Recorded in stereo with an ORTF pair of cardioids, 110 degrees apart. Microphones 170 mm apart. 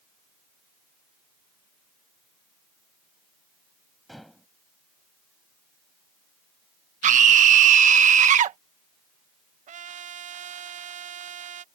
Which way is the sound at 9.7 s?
50° right.